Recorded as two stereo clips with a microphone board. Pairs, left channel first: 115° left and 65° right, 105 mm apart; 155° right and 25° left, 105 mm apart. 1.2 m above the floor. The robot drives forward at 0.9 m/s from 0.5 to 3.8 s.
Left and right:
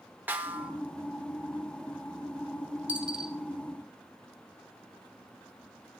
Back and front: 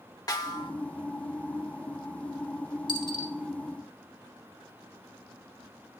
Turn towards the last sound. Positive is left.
turn(degrees=-160)